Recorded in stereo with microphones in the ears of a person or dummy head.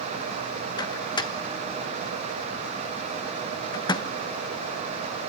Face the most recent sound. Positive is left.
turn(degrees=35)  # may be behind; listen again after turning